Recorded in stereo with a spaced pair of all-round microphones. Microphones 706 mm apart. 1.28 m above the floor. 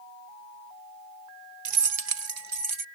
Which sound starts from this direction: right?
Keys jangling, at 1.6 s.